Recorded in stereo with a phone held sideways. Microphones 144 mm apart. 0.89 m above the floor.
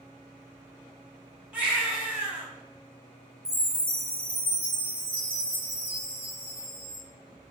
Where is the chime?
40° right (ahead or behind), 1.5 m.